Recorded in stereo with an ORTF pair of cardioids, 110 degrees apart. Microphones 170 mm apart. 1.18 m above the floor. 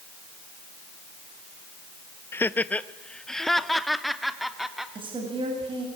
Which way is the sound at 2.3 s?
15° left.